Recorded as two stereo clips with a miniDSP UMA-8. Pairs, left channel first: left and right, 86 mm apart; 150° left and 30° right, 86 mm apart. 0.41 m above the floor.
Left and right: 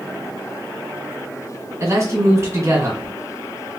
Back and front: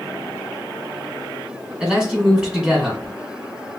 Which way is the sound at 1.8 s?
100° right.